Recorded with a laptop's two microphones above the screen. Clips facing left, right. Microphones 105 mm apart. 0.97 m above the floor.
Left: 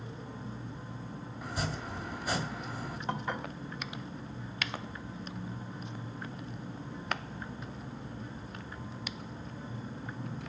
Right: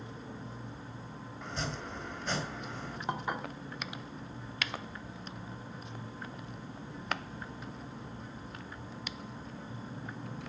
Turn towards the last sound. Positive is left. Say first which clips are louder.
# even
turn(degrees=-15)  # may be behind; listen again after turning